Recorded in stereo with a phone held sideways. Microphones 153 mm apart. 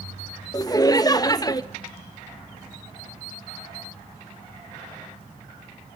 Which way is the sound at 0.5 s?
25° left (ahead or behind).